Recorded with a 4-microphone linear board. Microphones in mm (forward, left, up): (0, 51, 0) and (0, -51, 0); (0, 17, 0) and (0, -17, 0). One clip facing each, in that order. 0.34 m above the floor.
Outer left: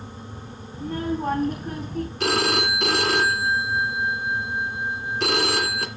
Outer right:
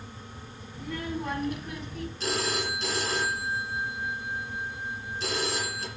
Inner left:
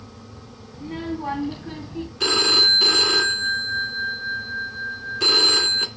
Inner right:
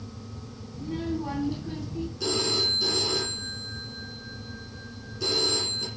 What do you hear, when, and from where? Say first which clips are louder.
0.7 s a child speaking: outer left 7 dB, inner left 1 dB; 40° left (ahead or behind), 2.5 m; by 2.1 s 45° left (ahead or behind), 2 m
2.2 s a phone ringing: outer left 7 dB, inner left 9 dB; 70° left (ahead or behind), 2.5 m